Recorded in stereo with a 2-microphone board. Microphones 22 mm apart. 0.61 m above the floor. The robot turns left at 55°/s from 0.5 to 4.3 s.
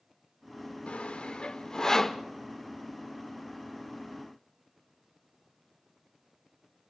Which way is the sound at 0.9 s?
75° left (ahead or behind).